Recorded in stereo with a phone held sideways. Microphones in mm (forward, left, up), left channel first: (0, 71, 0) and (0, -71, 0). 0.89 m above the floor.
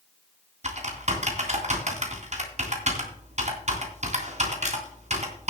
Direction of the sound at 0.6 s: 55° right (ahead or behind).